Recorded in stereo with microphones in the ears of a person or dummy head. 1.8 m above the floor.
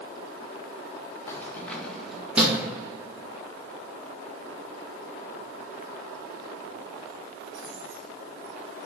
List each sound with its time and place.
1.3 s keys jangling: 20° left (ahead or behind), 1.6 m; by 8.9 s 65° right (ahead or behind), 4.5 m